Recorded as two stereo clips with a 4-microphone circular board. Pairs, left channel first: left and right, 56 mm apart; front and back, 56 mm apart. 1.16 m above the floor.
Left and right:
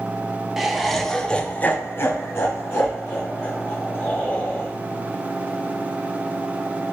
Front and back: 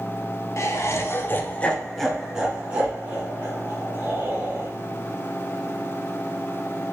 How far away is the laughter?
About 0.8 m.